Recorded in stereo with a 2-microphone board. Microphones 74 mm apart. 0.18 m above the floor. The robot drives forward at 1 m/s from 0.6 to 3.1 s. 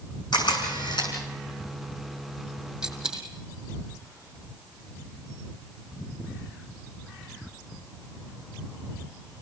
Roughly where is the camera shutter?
Left.